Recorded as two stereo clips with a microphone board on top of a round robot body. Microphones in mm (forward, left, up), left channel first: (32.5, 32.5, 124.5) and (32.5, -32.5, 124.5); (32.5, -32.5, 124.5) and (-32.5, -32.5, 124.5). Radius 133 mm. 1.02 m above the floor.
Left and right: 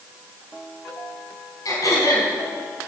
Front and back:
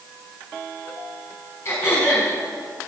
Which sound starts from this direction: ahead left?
Throat clearing, at 1.6 s.